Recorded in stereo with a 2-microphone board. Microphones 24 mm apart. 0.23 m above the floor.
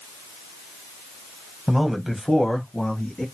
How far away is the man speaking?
About 1.3 m.